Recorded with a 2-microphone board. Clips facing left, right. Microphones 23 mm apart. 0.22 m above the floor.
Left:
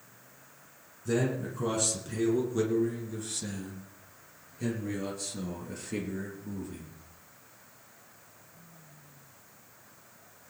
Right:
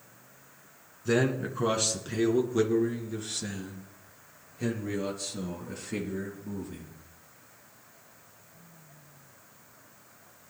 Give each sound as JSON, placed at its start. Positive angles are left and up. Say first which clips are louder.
{"t": 1.1, "sound": "a man speaking", "louder": "right 3 dB", "side_deg": -40, "distance_m": 2.5}